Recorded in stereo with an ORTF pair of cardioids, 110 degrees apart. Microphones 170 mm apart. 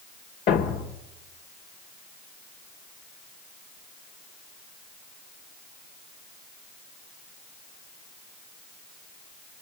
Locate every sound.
0.5 s a thud: 65° left, 1.7 m